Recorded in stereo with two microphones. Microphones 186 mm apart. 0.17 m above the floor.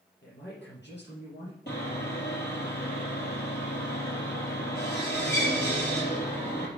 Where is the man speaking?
70° left (ahead or behind), 5 m.